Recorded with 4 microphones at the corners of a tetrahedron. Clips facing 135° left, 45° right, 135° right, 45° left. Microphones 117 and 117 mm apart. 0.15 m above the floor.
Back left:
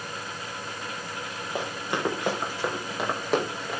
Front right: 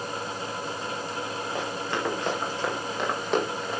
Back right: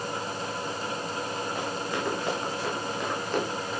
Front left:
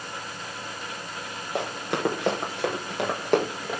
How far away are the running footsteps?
About 6 m.